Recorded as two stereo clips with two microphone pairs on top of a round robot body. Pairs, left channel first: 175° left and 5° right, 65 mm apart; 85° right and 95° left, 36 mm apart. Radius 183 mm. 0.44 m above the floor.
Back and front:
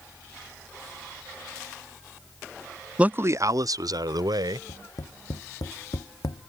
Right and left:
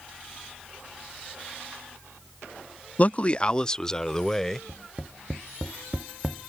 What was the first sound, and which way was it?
A man speaking, 70° right.